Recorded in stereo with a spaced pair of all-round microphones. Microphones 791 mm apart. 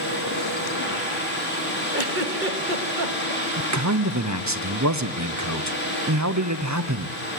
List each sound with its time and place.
0.0 s a fan: 15° left (ahead or behind), 6.5 m
1.9 s a giggle: 75° right (ahead or behind), 2.5 m
3.6 s a man speaking: 20° right (ahead or behind), 1.0 m